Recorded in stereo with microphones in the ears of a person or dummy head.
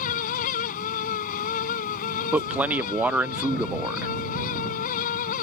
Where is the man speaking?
10° right (ahead or behind).